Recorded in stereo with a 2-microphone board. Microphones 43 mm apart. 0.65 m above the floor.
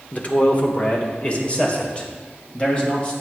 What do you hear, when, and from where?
0.1 s a man speaking: 35° left (ahead or behind), 1.5 m; by 3.1 s 30° left (ahead or behind), 3.5 m